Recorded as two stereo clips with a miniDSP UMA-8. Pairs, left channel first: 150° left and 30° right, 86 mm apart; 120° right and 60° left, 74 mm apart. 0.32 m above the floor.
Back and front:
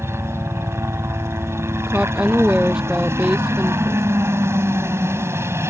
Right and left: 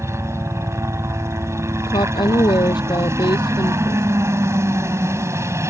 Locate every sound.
0.0 s a helicopter: 20° left
1.9 s a woman speaking: 110° right